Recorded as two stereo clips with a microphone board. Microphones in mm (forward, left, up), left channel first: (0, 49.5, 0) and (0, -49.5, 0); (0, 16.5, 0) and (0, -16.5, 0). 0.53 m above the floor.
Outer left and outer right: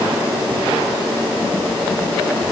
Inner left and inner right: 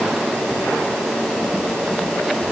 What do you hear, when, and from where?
Only background noise.